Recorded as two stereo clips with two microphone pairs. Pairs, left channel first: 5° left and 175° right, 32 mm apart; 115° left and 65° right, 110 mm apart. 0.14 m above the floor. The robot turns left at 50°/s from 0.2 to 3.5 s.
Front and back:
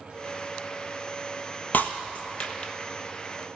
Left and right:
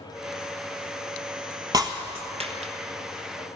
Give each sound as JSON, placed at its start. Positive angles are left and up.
{"t": 1.7, "sound": "breaking glass", "azimuth_deg": -15, "distance_m": 1.3}